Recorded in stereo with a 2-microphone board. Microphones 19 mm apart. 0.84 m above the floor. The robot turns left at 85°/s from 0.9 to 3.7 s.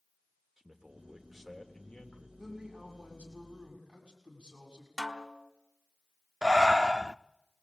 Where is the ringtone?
No ringtone in this recording.